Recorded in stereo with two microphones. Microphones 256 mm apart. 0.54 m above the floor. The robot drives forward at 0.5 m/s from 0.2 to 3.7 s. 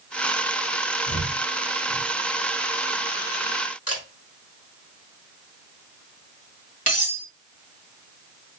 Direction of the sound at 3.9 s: 70° left (ahead or behind).